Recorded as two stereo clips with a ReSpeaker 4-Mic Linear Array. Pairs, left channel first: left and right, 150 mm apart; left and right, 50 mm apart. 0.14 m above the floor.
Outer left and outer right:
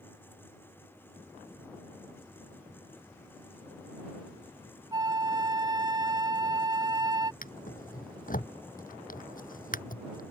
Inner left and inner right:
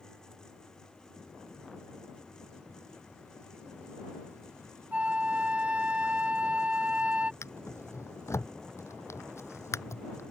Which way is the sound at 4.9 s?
25° right (ahead or behind).